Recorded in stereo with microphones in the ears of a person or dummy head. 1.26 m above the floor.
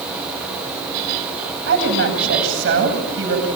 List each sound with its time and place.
1.7 s a woman speaking: 70° right (ahead or behind), 9 m